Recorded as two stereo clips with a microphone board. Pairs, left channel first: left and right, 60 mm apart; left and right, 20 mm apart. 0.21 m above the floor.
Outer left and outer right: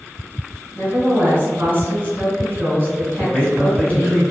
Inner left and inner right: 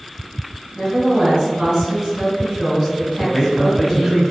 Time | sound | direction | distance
0.8 | a woman speaking | 35° right (ahead or behind) | 1.9 m
3.2 | a man speaking | 20° left (ahead or behind) | 1.2 m